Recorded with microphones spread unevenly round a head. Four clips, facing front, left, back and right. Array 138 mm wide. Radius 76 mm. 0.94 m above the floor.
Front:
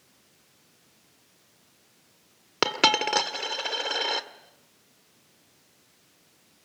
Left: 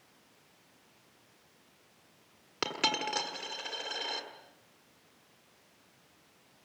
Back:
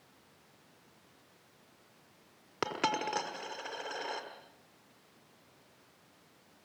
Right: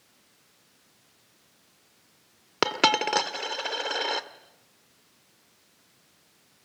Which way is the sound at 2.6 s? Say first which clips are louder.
Right 10 dB, front 8 dB; 55° right.